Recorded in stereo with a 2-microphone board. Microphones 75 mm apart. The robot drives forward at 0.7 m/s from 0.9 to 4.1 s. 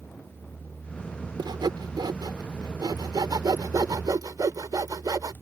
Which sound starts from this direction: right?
Sawing, at 1.4 s.